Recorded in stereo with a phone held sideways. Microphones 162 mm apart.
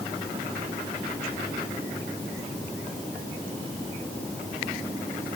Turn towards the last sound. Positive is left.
No sound to turn to.